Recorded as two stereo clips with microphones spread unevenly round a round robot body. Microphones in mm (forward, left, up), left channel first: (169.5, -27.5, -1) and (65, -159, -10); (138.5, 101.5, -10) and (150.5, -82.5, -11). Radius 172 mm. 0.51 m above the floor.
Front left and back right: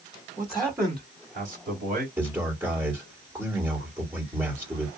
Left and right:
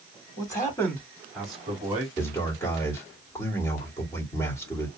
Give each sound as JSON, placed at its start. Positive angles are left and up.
{"t": 0.4, "sound": "a man speaking", "azimuth_deg": 145, "distance_m": 1.2}
{"t": 2.2, "sound": "a man speaking", "azimuth_deg": 160, "distance_m": 1.4}